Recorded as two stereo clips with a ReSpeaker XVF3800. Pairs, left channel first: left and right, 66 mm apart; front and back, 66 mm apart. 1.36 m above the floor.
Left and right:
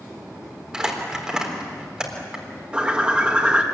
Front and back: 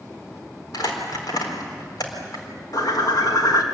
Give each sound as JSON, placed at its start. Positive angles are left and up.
{"t": 0.7, "sound": "crumpling", "azimuth_deg": -10, "distance_m": 4.0}
{"t": 2.7, "sound": "a bird", "azimuth_deg": -20, "distance_m": 2.5}